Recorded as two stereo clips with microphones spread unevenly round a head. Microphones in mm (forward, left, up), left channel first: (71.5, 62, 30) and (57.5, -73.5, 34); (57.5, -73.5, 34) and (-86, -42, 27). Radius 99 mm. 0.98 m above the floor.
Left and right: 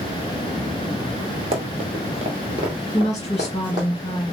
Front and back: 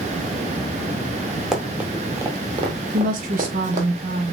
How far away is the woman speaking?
About 1.7 m.